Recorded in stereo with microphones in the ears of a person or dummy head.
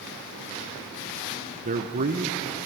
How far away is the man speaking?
About 0.8 m.